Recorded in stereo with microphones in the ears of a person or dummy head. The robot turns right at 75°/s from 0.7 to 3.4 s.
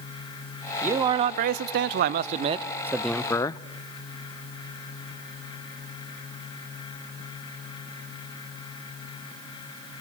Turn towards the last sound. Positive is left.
turn(degrees=25)